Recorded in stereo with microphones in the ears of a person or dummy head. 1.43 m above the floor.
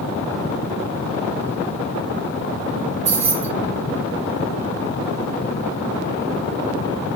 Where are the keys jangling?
40° right (ahead or behind), 1.4 m.